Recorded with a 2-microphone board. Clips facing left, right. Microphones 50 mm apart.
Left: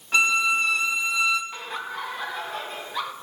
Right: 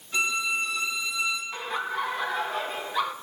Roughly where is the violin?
Left.